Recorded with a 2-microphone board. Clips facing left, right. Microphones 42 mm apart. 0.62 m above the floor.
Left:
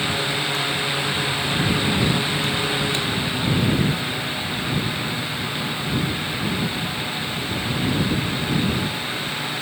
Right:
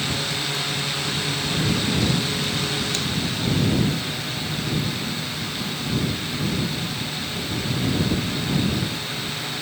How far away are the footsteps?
I don't hear footsteps.